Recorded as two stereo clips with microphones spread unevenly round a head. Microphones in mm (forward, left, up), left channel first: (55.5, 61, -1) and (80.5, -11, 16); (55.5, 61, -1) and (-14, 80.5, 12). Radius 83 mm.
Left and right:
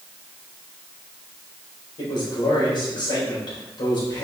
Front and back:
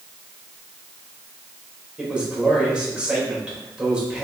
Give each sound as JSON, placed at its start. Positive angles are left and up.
{"t": 2.0, "sound": "a man speaking", "azimuth_deg": 90, "distance_m": 3.5}